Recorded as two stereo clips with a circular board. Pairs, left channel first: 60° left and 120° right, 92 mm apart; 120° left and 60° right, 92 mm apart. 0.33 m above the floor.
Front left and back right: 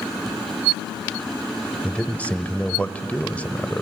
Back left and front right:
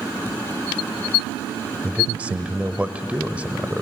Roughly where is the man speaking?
Ahead.